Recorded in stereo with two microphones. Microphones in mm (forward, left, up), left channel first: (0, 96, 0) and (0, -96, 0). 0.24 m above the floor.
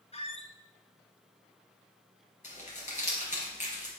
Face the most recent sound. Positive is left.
turn(degrees=40)  # may be behind; listen again after turning